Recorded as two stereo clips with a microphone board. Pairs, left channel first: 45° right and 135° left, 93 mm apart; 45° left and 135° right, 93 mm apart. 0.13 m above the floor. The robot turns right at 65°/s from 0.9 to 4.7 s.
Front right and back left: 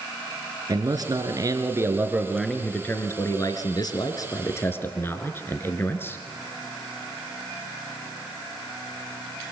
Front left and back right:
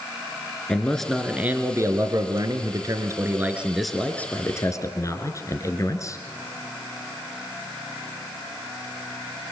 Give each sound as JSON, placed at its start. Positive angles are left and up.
{"t": 0.7, "sound": "a man speaking", "azimuth_deg": 125, "distance_m": 2.0}